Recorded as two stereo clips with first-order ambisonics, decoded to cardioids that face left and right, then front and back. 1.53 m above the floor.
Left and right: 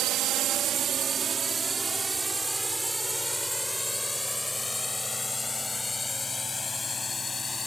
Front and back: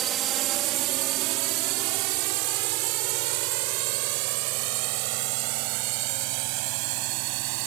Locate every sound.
0.0 s a drone: 130° right; by 7.7 s 165° left